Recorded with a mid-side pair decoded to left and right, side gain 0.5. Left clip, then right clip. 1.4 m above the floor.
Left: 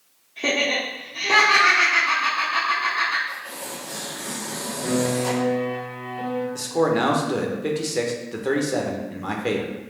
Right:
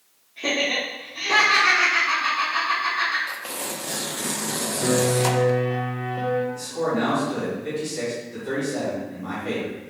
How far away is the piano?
About 0.9 m.